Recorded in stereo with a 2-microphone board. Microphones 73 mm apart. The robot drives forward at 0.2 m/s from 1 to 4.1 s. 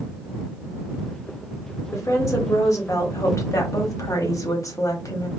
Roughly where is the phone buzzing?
I don't hear a phone buzzing.